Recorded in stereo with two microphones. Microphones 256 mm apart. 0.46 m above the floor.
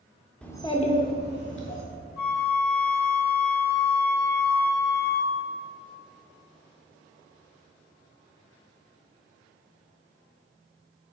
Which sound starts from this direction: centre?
A child speaking, at 0.4 s.